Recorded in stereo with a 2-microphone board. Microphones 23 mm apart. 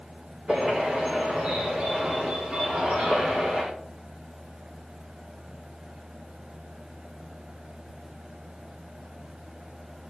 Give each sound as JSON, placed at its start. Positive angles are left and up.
{"t": 0.5, "sound": "a bird", "side_deg": -45, "distance_m": 7.5}